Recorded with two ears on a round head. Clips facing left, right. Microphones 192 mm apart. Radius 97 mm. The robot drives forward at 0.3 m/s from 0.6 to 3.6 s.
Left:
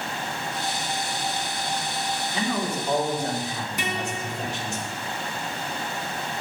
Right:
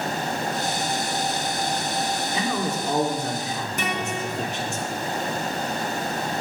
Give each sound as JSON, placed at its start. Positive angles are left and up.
{"t": 2.3, "sound": "a man speaking", "side_deg": -85, "distance_m": 3.5}
{"t": 3.8, "sound": "a guitar", "side_deg": -45, "distance_m": 3.0}